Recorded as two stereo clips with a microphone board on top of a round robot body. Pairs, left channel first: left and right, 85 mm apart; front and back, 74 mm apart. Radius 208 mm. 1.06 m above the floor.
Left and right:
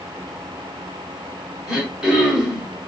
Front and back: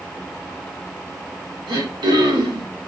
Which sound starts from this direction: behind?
Throat clearing, at 1.7 s.